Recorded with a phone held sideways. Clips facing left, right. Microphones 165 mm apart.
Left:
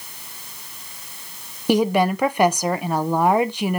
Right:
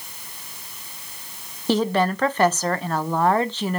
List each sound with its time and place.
1.7 s a woman speaking: 10° left (ahead or behind), 0.7 m